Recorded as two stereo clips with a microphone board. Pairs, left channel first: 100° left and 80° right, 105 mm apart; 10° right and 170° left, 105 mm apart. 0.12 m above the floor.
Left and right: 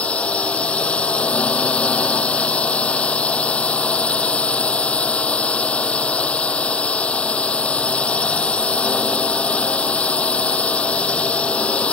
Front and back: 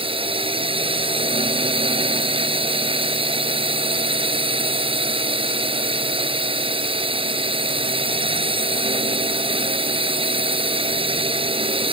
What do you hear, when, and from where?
0.0 s a drone: straight behind